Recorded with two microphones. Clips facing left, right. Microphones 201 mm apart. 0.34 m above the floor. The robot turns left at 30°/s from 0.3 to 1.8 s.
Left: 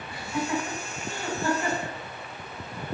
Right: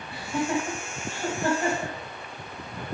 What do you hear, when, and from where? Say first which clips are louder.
0.1 s laughter: right 2 dB; 30° right (ahead or behind), 1.8 m; by 1.9 s 50° right (ahead or behind), 1.8 m